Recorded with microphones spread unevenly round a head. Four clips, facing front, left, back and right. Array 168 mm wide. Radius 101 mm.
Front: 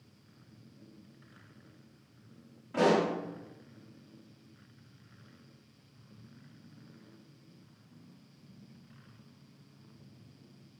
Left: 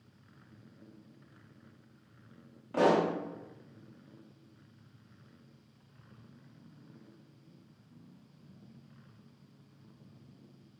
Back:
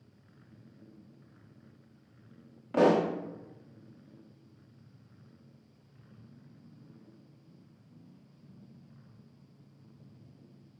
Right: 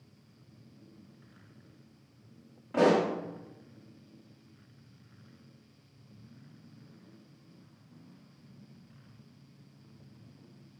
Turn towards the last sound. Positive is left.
turn(degrees=-170)